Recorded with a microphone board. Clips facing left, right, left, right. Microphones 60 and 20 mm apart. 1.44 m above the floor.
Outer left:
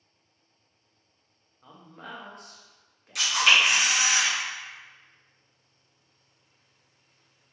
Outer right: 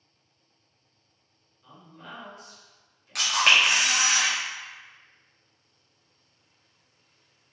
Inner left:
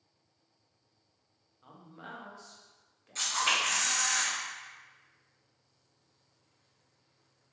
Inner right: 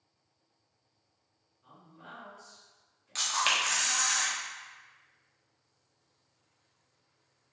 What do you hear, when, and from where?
1.6 s a man speaking: 60° left (ahead or behind), 0.8 m
3.1 s a camera shutter: 55° right (ahead or behind), 0.9 m